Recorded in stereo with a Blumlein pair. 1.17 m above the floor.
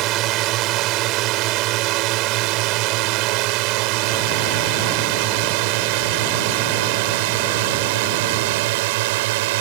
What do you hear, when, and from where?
0.0 s a drone: 35° right; by 9.6 s 50° right